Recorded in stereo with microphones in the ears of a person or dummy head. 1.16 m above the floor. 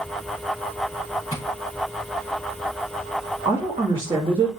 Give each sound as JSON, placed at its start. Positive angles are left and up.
{"t": 1.3, "sound": "tapping", "side_deg": 20, "distance_m": 6.0}
{"t": 3.5, "sound": "a woman speaking", "side_deg": -20, "distance_m": 2.5}